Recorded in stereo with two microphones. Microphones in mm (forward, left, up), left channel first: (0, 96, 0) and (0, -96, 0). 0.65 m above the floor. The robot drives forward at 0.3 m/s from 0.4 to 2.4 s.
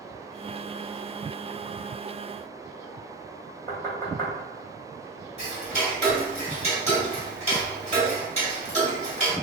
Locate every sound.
3.7 s knocking: 15° left (ahead or behind), 1.8 m
5.4 s ticking: 35° right (ahead or behind), 1.0 m